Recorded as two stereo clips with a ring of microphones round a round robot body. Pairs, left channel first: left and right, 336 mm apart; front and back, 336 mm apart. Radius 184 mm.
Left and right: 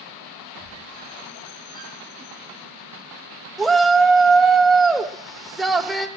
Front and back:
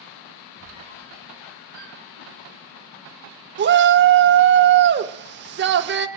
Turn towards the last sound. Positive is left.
turn(degrees=180)